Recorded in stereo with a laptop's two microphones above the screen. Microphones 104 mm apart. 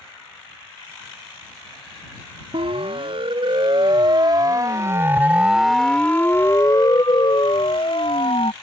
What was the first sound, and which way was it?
A siren, 60° right (ahead or behind).